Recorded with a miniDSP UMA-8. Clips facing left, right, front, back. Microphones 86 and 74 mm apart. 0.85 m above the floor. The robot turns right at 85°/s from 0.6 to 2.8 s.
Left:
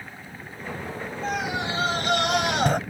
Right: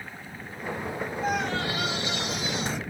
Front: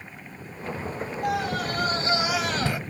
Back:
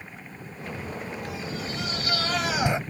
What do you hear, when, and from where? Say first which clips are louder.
1.2 s a scream: left 1 dB, front 7 dB; 10° right; by 2.8 s 120° left